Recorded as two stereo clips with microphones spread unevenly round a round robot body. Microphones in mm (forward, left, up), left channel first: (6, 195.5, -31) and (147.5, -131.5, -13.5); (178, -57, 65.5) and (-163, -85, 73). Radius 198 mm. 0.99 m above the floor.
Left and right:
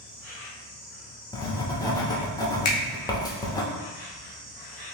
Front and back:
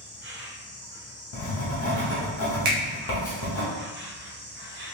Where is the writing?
35° left, 0.7 m.